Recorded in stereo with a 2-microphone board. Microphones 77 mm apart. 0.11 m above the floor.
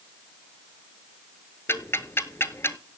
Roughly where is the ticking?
Left.